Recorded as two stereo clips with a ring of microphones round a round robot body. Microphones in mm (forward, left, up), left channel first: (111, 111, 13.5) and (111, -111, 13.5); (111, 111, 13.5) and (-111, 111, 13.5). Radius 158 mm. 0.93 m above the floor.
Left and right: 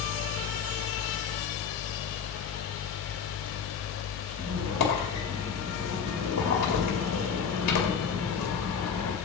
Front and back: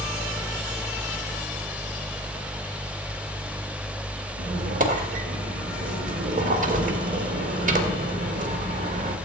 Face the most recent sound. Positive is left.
turn(degrees=125)